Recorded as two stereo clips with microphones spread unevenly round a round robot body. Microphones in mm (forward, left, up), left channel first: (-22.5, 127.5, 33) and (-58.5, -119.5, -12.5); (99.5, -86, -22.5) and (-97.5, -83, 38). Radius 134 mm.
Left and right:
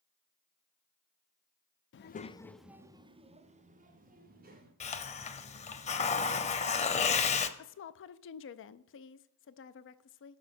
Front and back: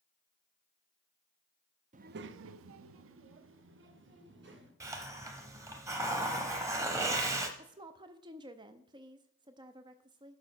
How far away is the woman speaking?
About 0.5 m.